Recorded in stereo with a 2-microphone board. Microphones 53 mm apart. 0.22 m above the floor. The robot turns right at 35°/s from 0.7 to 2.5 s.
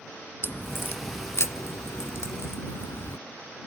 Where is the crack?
45° left (ahead or behind); by 3.2 s 55° left (ahead or behind).